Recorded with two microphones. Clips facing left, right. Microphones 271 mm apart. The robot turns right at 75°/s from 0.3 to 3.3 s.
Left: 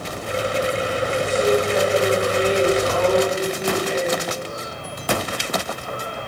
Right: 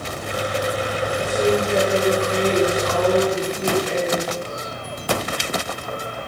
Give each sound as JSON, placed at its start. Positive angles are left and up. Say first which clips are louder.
{"t": 1.2, "sound": "a woman speaking", "louder": "even", "azimuth_deg": 180, "distance_m": 8.0}